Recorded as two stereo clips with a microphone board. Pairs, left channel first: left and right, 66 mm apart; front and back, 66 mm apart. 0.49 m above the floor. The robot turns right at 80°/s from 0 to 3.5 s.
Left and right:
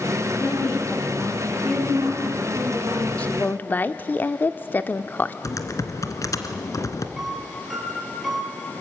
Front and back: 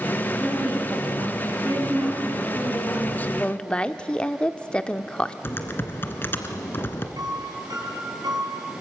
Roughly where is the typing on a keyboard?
Ahead left.